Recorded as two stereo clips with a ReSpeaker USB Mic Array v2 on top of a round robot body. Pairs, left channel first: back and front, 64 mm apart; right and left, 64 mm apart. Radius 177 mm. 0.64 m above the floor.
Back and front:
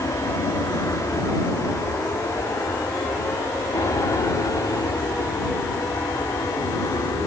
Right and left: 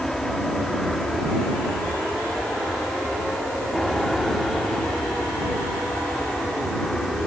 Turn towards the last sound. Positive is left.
turn(degrees=-175)